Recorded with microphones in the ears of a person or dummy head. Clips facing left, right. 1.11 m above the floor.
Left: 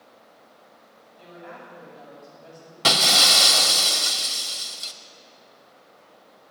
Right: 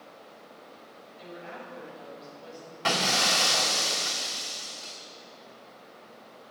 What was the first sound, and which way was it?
A woman speaking, 35° right (ahead or behind).